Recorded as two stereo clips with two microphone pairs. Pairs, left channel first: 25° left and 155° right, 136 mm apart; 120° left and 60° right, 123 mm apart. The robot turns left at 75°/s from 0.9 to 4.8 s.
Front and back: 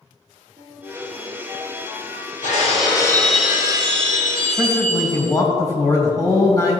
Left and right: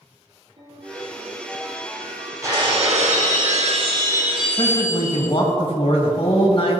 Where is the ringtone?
105° right, 3.5 m; by 2.5 s 135° left, 3.5 m.